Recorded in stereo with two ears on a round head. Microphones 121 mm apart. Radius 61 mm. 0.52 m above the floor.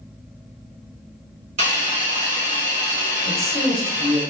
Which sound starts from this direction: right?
A hiss, at 1.6 s.